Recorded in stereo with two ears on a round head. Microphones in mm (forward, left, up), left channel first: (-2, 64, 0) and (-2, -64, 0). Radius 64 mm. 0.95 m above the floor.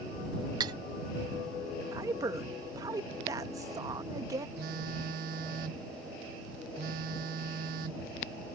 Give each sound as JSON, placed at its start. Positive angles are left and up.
{"t": 0.6, "sound": "cutlery clinking", "side_deg": -30}
{"t": 1.9, "sound": "a woman speaking", "side_deg": -25}
{"t": 4.6, "sound": "a phone buzzing", "side_deg": -70}